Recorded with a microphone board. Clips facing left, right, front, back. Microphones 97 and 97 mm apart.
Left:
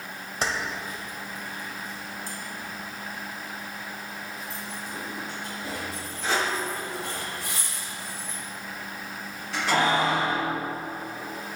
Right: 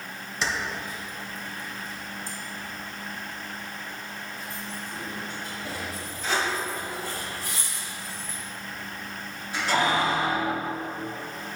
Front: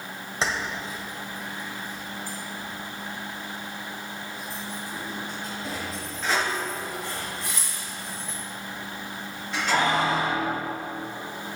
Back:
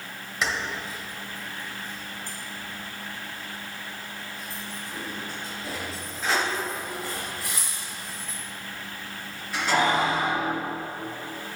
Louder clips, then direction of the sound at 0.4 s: Left 1 dB, front 1 dB; 55° left.